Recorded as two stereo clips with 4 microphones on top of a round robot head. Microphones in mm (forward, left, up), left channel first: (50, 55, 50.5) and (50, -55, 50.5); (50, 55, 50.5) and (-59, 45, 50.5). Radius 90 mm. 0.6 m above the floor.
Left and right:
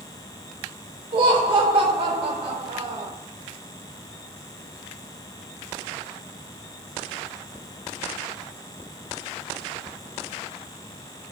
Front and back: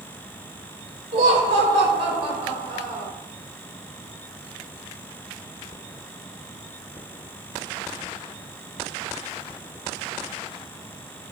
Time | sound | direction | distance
1.1 | laughter | 130° right | 3 m